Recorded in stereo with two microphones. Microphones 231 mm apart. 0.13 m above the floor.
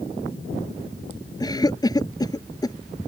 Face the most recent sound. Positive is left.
turn(degrees=15)  # may be behind; listen again after turning